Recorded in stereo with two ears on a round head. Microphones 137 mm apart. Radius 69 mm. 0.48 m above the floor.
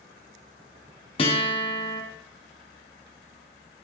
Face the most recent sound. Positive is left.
turn(degrees=35)  # may be behind; listen again after turning